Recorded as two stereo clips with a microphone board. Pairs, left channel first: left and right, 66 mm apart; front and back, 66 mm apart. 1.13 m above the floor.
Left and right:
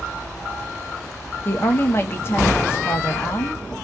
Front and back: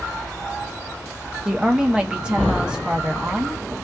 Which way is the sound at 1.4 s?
110° left.